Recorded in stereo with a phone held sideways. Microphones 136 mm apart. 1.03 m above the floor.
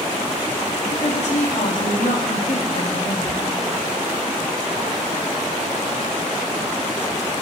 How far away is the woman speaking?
About 3 m.